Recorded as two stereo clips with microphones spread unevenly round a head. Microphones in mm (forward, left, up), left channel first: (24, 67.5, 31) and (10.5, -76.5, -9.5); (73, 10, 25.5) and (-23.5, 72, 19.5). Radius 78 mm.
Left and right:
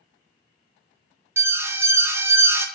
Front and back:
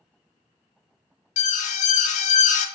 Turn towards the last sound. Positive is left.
turn(degrees=-30)